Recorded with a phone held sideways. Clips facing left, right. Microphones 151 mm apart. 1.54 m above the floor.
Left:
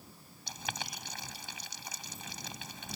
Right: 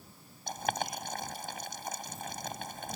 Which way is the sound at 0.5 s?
50° right (ahead or behind).